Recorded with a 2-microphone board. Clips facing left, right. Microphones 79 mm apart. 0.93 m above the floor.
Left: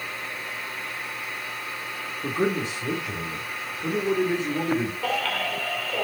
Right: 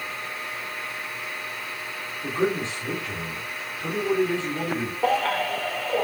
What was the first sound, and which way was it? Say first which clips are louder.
A man speaking: even; 15° left (ahead or behind).